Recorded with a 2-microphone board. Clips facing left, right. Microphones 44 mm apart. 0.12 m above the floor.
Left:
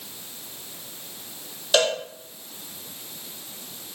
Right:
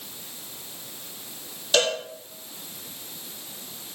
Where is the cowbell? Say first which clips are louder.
Left 2 dB; 10° left (ahead or behind), 1.3 m.